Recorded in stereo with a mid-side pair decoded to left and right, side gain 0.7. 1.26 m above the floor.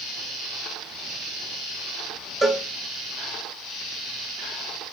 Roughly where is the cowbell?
Ahead.